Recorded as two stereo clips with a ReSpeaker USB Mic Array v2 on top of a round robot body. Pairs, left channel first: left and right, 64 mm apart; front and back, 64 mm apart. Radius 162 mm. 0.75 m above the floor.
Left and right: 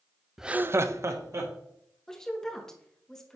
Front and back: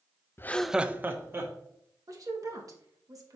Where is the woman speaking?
170° left, 1.6 m.